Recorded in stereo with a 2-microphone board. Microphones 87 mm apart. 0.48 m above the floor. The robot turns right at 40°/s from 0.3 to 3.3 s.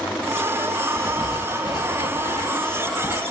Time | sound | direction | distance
1.0 | writing | 35° left | 0.7 m